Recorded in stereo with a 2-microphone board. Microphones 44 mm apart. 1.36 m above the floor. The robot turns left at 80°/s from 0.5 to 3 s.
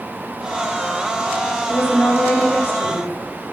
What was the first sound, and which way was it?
A woman speaking, 130° left.